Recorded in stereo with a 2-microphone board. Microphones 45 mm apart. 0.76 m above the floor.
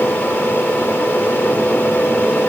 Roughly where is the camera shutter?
I don't hear a camera shutter.